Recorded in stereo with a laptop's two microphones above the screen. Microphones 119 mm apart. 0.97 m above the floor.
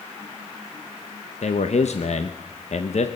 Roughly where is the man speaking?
Left.